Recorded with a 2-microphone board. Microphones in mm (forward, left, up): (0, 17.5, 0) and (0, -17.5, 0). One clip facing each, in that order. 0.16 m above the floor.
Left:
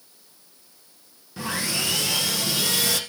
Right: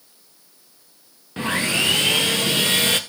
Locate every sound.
1.4 s sawing: 45° right (ahead or behind), 1.6 m